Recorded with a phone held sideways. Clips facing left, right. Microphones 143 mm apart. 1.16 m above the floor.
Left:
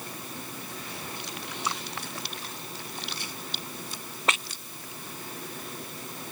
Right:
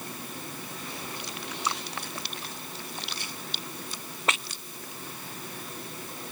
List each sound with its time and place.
Only background noise.